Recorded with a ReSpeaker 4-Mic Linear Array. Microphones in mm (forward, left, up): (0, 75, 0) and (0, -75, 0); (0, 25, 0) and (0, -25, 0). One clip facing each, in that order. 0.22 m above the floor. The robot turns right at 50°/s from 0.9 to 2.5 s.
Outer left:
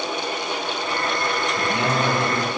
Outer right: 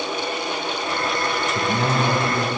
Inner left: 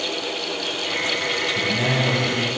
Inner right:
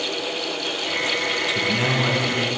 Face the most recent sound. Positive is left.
turn(degrees=-20)